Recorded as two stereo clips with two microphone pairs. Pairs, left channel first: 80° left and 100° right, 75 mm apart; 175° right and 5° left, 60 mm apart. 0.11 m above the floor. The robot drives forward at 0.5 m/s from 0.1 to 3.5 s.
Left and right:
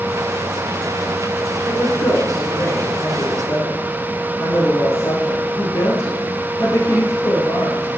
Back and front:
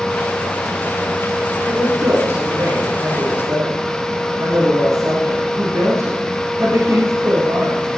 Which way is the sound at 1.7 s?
35° left.